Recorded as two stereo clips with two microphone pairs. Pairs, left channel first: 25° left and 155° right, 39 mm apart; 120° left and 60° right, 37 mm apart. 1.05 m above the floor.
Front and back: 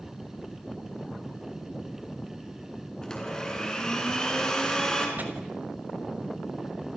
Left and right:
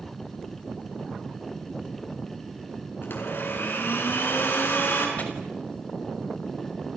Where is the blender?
100° left, 6 m.